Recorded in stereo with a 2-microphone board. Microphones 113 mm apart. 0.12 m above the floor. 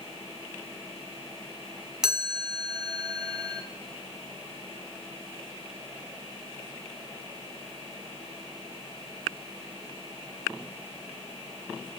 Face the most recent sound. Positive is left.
turn(degrees=-5)  # may be behind; listen again after turning